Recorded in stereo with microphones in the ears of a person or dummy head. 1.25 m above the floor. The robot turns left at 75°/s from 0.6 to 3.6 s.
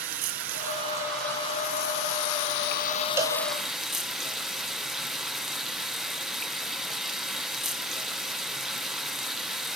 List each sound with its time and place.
0.0 s running water: 135° right, 1.0 m; by 9.8 s straight ahead, 1.0 m
3.2 s a cowbell: 10° right (ahead or behind), 2.5 m; by 3.4 s 25° right (ahead or behind), 2.5 m